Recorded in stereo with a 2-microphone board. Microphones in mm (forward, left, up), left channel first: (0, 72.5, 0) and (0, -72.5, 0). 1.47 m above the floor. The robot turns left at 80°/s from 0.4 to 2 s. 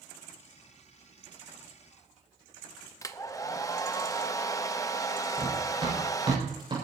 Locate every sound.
3.0 s a hair dryer: 25° left (ahead or behind), 0.6 m
5.4 s running footsteps: 40° right (ahead or behind), 7 m; by 6.7 s 35° right (ahead or behind), 7.5 m